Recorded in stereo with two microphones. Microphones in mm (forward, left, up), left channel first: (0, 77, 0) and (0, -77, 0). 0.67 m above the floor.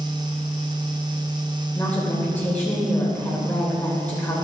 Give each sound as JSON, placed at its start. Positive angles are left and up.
{"t": 1.8, "sound": "a woman speaking", "side_deg": 10, "distance_m": 2.5}